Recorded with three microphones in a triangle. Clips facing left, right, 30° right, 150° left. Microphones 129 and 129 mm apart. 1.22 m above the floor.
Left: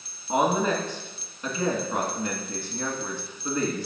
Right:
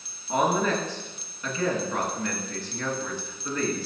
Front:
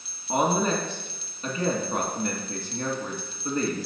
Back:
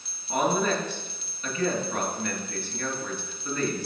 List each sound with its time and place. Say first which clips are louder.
0.3 s a woman speaking: left 1 dB, front 1 dB; 20° left, 2.5 m